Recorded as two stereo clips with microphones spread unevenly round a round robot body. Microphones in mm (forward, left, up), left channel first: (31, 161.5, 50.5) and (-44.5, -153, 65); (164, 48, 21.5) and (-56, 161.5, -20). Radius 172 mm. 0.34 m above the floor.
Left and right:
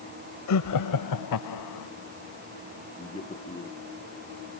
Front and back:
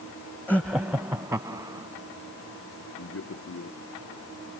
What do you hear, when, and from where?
0.5 s laughter: 60° left; by 1.9 s 80° left
3.0 s a man speaking: 5° left